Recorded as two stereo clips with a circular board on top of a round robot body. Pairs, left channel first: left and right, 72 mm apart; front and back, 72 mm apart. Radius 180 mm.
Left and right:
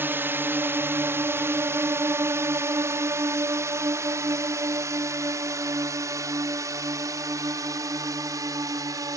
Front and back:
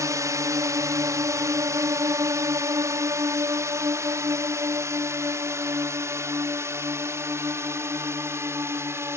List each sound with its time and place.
0.0 s a drone: 145° right; by 9.2 s 125° right